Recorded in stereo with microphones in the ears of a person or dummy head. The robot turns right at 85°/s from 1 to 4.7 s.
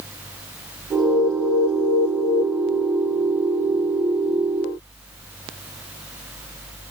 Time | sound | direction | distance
1.0 | an alarm | 25° left | ?